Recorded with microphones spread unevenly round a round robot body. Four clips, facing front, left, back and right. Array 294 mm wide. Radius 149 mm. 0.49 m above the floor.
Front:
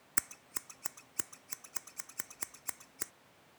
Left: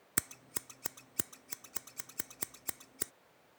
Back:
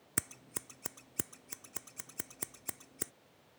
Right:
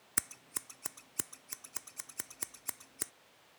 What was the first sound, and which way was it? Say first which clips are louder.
Scissors: left 2 dB, back 2 dB; 150° left.